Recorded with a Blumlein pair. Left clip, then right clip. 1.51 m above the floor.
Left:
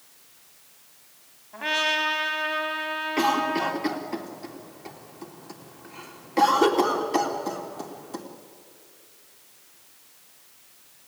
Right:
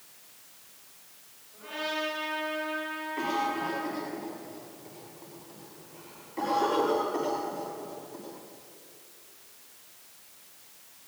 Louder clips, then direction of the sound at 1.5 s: Left 9 dB; 50° left.